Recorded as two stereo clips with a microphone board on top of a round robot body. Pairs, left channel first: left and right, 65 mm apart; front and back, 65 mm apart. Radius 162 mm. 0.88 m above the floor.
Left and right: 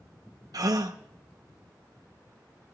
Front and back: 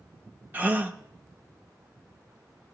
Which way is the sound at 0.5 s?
115° right.